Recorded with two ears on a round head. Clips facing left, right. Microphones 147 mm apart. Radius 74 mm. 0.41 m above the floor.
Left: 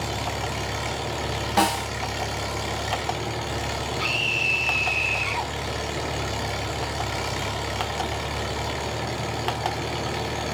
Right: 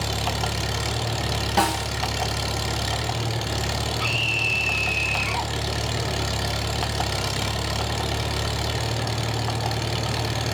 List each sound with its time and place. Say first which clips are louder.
0.0 s an engine running: right 1 dB; 45° right (ahead or behind), 2 m
1.6 s a snare drum: left 1 dB; centre (ahead or behind), 2 m
4.0 s a scream: even; 5° left (ahead or behind), 1.3 m